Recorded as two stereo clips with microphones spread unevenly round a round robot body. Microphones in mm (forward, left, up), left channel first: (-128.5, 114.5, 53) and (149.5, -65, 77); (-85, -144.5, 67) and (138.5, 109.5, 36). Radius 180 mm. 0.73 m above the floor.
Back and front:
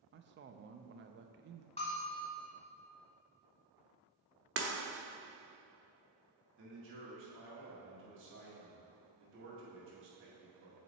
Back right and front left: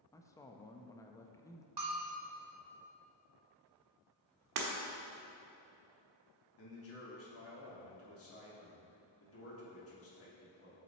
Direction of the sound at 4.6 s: 20° left.